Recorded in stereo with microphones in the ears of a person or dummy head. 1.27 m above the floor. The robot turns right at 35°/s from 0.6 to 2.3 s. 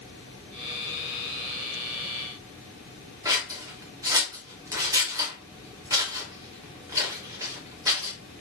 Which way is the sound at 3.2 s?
20° right (ahead or behind).